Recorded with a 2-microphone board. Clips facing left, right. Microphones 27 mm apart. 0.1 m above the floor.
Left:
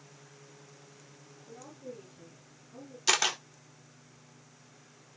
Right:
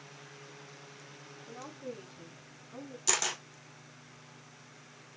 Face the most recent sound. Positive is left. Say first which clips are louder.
# left 5 dB
turn(degrees=30)  # may be behind; listen again after turning